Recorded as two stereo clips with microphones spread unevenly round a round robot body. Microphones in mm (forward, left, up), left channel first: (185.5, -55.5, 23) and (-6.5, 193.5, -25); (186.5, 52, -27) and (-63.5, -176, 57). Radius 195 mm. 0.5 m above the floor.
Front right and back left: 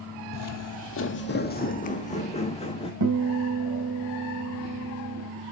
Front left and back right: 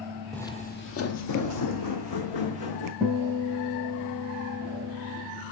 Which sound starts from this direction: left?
A guitar, at 3.0 s.